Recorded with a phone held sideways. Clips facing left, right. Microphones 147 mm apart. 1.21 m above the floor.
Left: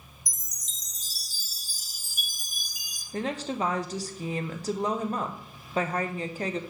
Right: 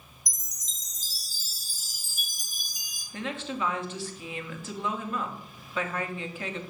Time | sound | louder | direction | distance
0.3 | a chime | even | 65° left (ahead or behind) | 1.0 m
3.1 | a woman speaking | left 3 dB | 40° left (ahead or behind) | 0.7 m